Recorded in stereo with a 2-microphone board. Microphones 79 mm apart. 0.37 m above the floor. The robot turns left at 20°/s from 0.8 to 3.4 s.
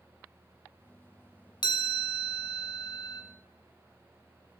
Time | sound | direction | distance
1.6 | a chime | 95° left | 0.7 m